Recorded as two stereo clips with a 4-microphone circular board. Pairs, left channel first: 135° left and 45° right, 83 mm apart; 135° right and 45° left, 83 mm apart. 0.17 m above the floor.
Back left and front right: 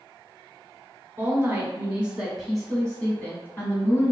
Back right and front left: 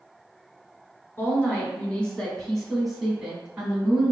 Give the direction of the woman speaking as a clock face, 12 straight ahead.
3 o'clock.